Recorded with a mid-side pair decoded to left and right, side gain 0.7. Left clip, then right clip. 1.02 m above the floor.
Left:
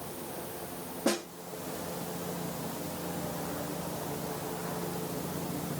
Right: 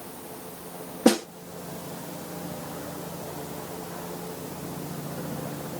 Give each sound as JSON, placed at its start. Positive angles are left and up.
{"t": 1.1, "sound": "a snare drum", "azimuth_deg": -50, "distance_m": 1.3}